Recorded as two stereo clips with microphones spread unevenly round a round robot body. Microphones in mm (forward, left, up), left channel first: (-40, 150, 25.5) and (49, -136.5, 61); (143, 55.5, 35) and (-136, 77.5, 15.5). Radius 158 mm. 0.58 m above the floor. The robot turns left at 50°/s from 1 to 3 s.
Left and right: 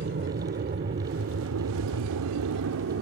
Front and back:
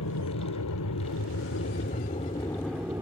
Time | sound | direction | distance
0.0 | an aircraft | 20° right | ?